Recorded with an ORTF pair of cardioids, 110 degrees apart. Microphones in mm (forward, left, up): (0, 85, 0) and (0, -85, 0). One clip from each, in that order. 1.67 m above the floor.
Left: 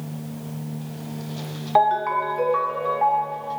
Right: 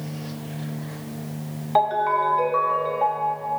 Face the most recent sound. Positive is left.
turn(degrees=15)